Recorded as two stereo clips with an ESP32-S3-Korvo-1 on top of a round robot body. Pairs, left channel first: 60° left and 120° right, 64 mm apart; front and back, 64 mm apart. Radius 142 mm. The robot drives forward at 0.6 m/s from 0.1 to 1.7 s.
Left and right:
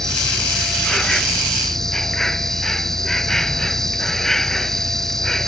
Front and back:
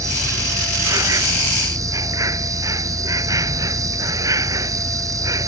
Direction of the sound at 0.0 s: 145° left.